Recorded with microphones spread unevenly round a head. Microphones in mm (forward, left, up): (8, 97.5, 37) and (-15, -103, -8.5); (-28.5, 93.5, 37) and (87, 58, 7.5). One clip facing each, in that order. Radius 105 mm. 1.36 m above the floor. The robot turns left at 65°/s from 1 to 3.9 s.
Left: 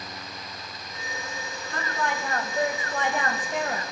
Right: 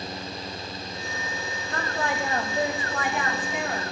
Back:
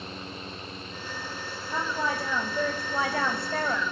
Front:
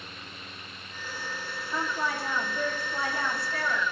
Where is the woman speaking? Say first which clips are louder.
Right 1 dB, back 2 dB; 120° right, 1.6 m; by 3.8 s 100° left, 1.6 m.